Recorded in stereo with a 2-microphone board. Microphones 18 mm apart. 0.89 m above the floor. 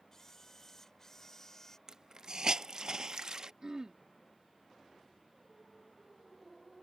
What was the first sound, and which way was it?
A camera shutter, 25° left (ahead or behind).